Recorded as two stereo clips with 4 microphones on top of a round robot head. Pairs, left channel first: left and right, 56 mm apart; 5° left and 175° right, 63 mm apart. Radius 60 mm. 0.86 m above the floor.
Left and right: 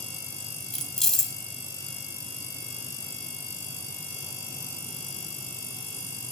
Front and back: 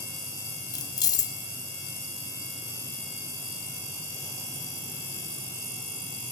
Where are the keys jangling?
5° left, 0.9 m.